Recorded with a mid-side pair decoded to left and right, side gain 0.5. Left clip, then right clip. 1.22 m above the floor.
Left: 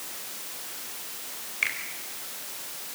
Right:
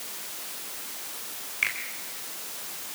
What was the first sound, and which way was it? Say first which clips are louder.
A finger snap: even; straight ahead.